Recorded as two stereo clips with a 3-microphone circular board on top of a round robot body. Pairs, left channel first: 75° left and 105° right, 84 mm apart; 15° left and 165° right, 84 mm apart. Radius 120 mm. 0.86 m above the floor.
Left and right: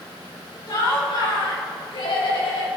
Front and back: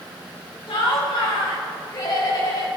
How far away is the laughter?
About 5.5 m.